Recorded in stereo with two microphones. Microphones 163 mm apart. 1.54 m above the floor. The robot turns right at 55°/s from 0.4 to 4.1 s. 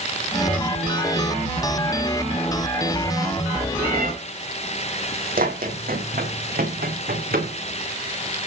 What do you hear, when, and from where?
3.8 s a cat meowing: 80° right, 8.5 m; by 4.1 s 65° right (ahead or behind), 8.5 m
5.4 s running footsteps: 65° right (ahead or behind), 5 m; by 7.5 s 70° right (ahead or behind), 7.5 m